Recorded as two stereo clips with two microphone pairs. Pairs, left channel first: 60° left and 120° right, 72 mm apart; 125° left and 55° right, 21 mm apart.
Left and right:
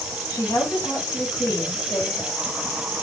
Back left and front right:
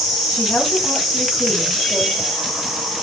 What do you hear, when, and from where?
0.3 s a woman speaking: 105° left, 4.5 m